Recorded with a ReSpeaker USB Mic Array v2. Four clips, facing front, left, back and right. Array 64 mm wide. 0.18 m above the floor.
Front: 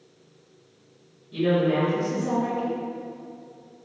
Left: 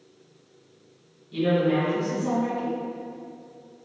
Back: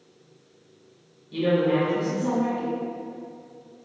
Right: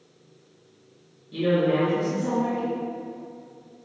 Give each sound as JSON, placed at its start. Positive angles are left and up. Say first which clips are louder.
{"t": 1.3, "sound": "a woman speaking", "louder": "even, even", "azimuth_deg": 180, "distance_m": 1.8}